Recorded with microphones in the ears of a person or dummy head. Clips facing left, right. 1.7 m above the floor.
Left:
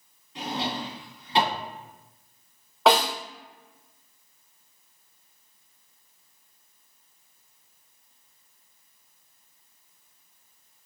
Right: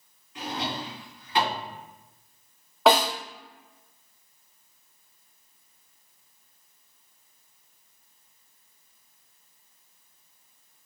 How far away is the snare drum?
About 1.2 m.